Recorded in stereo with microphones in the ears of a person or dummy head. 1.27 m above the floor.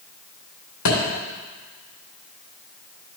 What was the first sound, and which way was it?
A thud, 70° left (ahead or behind).